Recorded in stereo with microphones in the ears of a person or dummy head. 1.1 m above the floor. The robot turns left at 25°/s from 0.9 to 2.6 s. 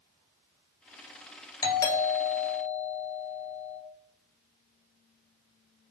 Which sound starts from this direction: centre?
A doorbell, at 1.6 s.